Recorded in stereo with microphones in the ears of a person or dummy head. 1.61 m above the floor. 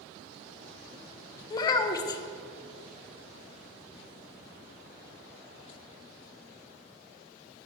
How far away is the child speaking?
About 0.6 m.